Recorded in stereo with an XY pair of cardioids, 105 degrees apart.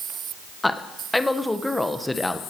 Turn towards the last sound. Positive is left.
turn(degrees=15)